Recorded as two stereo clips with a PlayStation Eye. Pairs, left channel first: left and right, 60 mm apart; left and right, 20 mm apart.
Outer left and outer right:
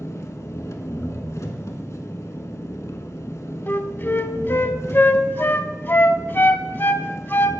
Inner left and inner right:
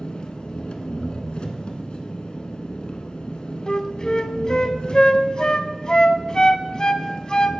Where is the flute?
40° left (ahead or behind), 0.5 m.